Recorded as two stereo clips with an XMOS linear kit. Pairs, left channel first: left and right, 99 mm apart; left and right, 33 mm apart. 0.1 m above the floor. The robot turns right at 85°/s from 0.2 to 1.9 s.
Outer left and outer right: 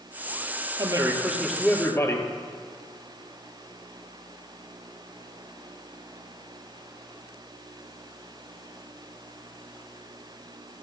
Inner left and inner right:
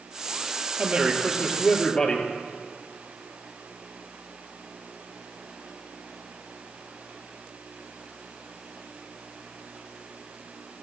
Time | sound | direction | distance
0.8 | a man speaking | 60° right | 3 m